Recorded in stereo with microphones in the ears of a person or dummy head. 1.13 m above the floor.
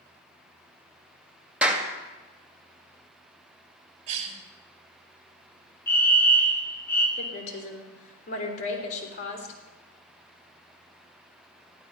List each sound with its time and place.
1.6 s a clap: 5° right (ahead or behind), 1.8 m
4.1 s a cough: 40° right (ahead or behind), 4.5 m
5.9 s a fire alarm: 15° left (ahead or behind), 1.9 m
7.2 s a woman speaking: 45° left (ahead or behind), 4 m